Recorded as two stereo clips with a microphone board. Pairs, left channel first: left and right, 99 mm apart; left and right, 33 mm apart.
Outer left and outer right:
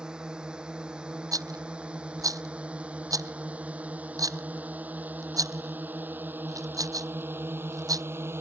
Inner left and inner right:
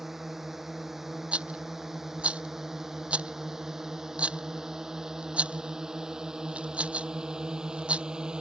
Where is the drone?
10° right (ahead or behind); by 8.4 s 25° right (ahead or behind).